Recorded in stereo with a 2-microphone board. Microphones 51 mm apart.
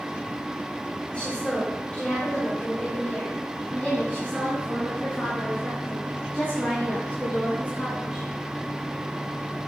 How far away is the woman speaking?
About 4 m.